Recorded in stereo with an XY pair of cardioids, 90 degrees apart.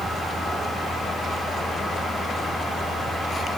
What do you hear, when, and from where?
Only background noise.